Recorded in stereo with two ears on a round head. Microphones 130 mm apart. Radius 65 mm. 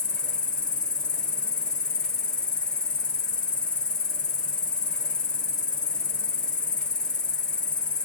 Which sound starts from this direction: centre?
An insect, at 0.0 s.